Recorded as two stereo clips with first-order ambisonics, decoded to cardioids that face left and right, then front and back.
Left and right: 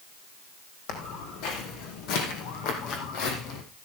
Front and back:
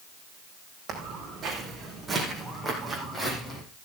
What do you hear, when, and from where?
0.9 s footsteps: 115° left, 4 m; by 3.6 s 75° left, 3.5 m